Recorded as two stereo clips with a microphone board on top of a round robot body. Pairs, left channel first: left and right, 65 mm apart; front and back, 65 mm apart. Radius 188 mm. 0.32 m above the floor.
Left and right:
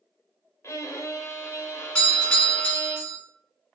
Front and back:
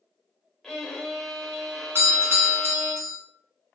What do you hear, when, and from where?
0.6 s a violin: 80° left, 0.8 m
1.9 s a doorbell: 160° left, 1.4 m